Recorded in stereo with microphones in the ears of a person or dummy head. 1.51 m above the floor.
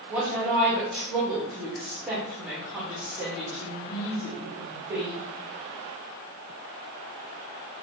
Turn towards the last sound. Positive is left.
turn(degrees=0)  # may be behind; listen again after turning